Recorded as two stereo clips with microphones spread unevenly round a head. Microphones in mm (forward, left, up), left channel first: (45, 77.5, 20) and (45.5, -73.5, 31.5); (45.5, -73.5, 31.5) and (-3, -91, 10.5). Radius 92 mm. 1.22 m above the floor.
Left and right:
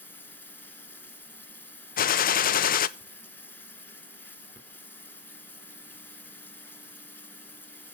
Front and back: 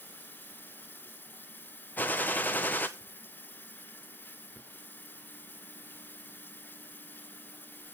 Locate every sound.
0.0 s running water: 10° left, 1.8 m
2.0 s a gunshot: 100° left, 0.5 m